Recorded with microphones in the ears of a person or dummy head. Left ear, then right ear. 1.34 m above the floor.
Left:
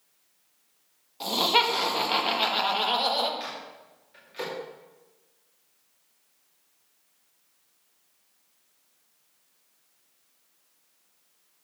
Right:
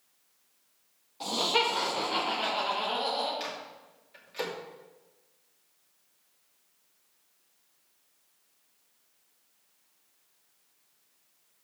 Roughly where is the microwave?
Centre.